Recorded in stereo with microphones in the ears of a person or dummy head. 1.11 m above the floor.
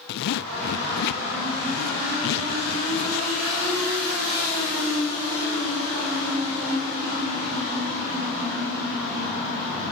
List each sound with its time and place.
0.1 s a zipper: 65° left (ahead or behind), 0.6 m